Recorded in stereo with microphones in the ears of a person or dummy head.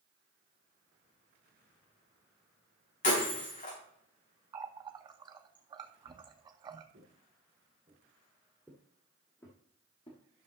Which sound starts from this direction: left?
Breaking glass, at 3.0 s.